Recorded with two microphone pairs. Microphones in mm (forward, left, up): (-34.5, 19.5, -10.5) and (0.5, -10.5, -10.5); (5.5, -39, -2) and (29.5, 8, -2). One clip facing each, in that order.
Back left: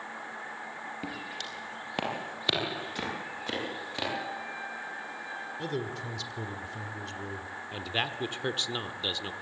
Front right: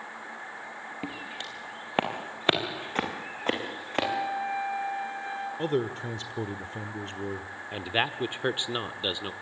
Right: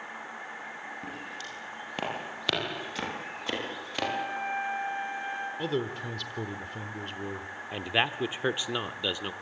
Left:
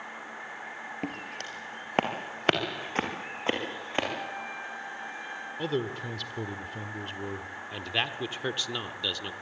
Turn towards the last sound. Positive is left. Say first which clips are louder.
# front right 4 dB, right 3 dB
turn(degrees=-75)